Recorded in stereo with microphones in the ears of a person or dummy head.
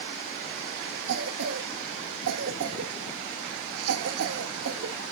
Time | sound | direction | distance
1.1 | a cough | 80° right | 0.9 m